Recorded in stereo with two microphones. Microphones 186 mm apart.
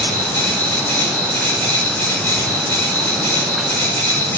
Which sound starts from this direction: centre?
An insect, at 0.0 s.